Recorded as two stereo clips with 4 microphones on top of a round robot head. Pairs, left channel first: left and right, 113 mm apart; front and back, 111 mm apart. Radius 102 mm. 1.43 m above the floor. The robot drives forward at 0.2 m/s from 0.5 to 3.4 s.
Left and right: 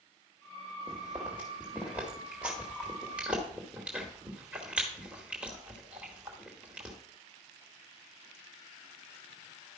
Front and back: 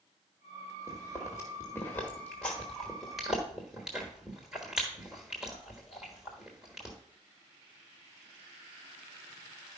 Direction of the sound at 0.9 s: 15° right.